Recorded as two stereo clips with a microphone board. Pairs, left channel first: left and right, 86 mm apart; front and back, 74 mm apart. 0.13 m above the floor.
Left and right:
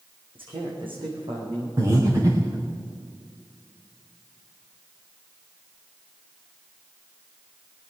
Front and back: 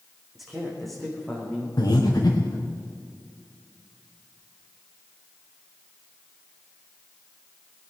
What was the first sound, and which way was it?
A man speaking, 90° right.